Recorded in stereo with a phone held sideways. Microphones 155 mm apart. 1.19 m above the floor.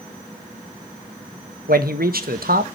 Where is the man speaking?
80° right, 1.2 m.